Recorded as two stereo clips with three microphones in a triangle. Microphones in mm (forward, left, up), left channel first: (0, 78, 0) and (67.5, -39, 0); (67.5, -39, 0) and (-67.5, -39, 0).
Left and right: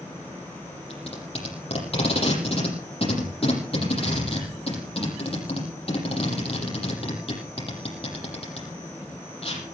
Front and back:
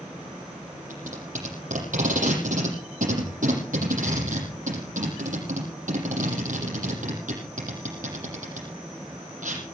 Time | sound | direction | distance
0.9 | tape being pulled | 165° left | 8 m